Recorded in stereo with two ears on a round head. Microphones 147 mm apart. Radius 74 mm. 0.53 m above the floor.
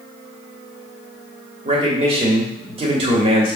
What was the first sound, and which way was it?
A man speaking, 35° right (ahead or behind).